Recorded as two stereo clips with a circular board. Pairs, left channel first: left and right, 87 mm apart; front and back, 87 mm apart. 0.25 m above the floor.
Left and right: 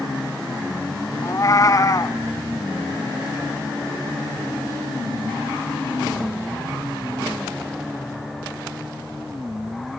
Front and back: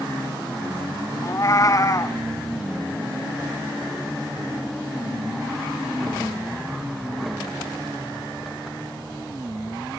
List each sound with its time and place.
1.2 s a cat meowing: 45° left, 0.9 m